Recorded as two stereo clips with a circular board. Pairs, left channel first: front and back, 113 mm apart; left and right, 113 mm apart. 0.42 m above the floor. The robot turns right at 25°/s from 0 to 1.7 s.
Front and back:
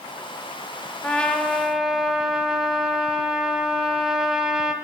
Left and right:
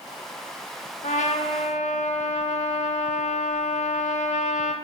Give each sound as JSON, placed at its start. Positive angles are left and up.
{"t": 1.0, "sound": "a trumpet", "azimuth_deg": 75, "distance_m": 0.6}